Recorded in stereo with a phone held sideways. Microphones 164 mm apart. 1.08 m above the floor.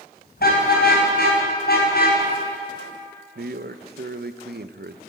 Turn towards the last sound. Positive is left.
turn(degrees=-75)  # may be behind; listen again after turning